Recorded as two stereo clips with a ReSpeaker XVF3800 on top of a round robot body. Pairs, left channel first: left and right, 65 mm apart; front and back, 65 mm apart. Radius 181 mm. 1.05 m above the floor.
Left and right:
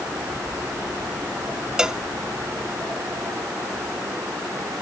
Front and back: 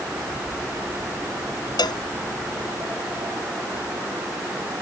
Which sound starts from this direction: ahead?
A cowbell, at 1.8 s.